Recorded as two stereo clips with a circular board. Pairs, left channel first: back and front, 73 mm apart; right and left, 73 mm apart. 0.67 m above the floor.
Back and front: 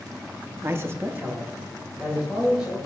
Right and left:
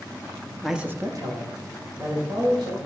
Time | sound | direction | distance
0.6 | a man speaking | 10° right | 0.6 m